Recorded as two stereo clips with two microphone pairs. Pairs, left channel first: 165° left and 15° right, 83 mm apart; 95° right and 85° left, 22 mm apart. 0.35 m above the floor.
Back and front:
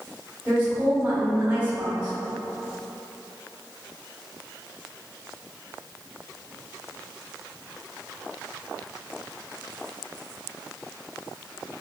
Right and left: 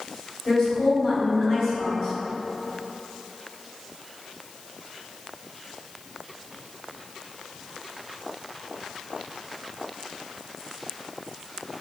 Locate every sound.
0.5 s a woman speaking: 70° right, 1.6 m